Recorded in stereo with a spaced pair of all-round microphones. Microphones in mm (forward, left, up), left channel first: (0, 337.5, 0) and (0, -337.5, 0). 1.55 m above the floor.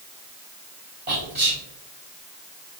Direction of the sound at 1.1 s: 65° right (ahead or behind).